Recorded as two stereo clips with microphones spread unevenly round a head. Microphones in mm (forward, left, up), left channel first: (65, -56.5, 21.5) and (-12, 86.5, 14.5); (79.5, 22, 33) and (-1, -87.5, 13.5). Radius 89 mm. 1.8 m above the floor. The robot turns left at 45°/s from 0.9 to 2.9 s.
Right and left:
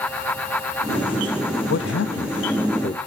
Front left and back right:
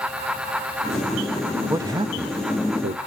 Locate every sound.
1.7 s a man speaking: 55° right, 0.6 m; by 3.0 s 105° right, 0.6 m